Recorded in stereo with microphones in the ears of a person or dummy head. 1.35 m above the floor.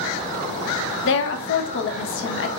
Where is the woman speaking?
60° left (ahead or behind), 0.6 m.